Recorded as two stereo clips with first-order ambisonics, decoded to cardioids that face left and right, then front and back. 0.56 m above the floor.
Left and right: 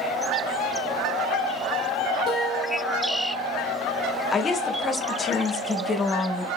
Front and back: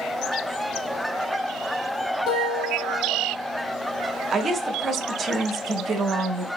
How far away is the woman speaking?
About 0.6 m.